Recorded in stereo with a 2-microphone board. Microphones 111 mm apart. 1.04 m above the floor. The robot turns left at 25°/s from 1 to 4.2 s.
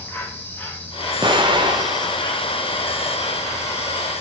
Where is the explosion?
70° right, 0.9 m; by 2.9 s 110° right, 0.9 m.